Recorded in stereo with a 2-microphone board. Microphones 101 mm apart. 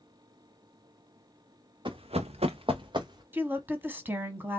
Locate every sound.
1.9 s running footsteps: 50° right (ahead or behind), 0.7 m; by 3.2 s 40° right (ahead or behind), 1.4 m
3.3 s a woman speaking: 20° right (ahead or behind), 1.0 m